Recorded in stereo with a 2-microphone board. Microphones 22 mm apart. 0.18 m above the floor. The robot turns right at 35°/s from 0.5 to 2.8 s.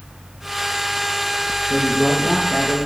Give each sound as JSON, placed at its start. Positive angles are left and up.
{"t": 1.7, "sound": "a man speaking", "azimuth_deg": 40, "distance_m": 4.5}